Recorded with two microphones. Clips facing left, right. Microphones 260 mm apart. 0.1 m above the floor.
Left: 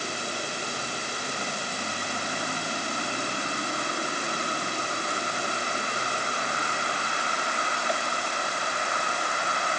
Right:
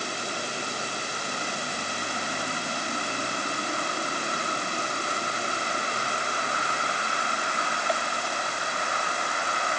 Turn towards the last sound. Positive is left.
No sound to turn to.